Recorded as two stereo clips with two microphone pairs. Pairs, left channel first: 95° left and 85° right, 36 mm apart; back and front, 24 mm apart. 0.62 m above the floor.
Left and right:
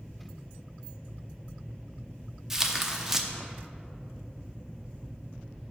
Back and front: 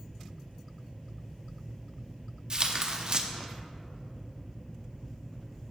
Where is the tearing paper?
15° right, 0.6 m.